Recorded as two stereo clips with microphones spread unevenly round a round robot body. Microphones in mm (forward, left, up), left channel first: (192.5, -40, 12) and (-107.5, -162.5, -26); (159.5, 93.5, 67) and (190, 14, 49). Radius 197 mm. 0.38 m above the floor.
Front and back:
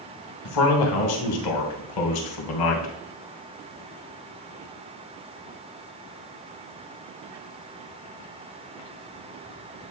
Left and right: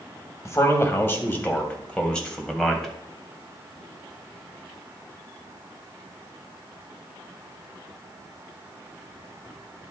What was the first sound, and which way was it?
A man speaking, 50° left.